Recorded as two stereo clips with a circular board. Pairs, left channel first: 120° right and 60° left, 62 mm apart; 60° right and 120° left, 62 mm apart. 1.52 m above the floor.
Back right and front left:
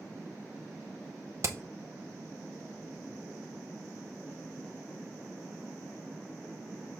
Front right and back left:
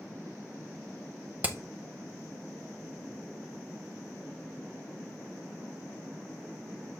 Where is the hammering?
65° left, 0.8 m.